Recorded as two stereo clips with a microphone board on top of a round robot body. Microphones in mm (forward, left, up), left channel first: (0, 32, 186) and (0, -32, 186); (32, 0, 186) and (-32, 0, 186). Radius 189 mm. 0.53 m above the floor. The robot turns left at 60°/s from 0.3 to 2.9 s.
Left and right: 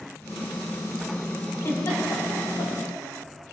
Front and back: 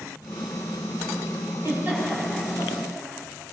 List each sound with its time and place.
1.6 s a giggle: 130° left, 6.5 m; by 2.7 s 65° left, 6.5 m